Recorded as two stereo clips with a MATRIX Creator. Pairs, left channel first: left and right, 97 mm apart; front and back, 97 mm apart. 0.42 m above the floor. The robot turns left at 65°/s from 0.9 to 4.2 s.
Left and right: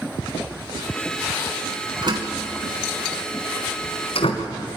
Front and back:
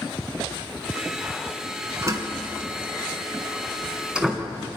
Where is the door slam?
120° right, 2.5 m; by 4.5 s 100° left, 2.5 m.